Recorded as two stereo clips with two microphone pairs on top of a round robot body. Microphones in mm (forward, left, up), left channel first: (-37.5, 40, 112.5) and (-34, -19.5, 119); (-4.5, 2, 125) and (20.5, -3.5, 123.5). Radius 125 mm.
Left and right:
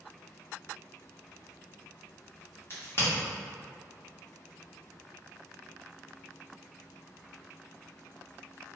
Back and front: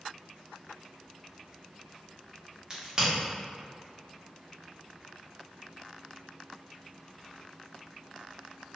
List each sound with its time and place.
2.7 s a crack: 45° left, 1.3 m